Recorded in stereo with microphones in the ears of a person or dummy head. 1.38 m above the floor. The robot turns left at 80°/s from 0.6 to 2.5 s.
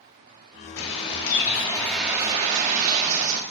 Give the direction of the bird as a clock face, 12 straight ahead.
9 o'clock.